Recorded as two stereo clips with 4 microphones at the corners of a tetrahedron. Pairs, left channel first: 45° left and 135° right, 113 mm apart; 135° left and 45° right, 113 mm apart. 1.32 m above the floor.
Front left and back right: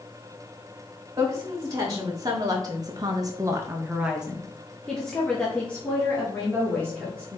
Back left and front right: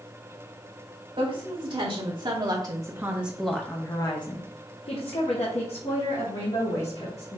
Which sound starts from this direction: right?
A woman speaking, at 1.2 s.